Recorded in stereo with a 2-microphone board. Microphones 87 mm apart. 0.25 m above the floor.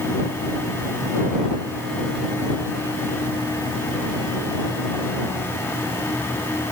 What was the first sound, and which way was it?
Only background noise.